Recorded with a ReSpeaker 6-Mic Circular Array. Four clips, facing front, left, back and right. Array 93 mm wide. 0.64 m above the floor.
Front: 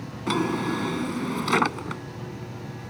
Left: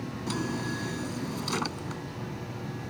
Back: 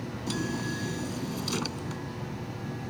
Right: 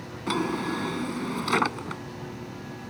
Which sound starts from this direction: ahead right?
A drawer, at 0.3 s.